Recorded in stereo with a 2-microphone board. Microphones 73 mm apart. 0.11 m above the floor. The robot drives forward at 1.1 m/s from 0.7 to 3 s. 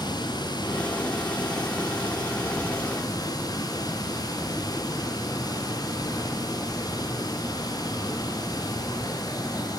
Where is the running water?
75° left (ahead or behind), 8 m; by 9.8 s 60° left (ahead or behind), 9 m.